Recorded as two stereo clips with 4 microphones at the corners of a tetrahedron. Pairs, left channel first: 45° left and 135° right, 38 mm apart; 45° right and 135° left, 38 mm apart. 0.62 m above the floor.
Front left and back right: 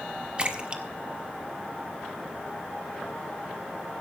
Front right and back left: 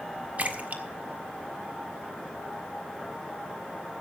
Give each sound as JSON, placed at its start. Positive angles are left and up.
{"t": 0.4, "sound": "a splash", "azimuth_deg": 170, "distance_m": 1.6}